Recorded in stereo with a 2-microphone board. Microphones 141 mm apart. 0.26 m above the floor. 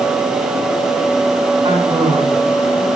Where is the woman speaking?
35° right (ahead or behind), 3 m.